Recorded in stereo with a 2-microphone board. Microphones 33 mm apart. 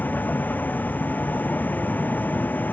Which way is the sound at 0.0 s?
65° left (ahead or behind).